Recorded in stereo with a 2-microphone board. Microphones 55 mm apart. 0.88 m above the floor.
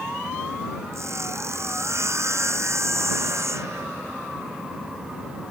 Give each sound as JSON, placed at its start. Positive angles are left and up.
{"t": 0.9, "sound": "sawing", "side_deg": -60}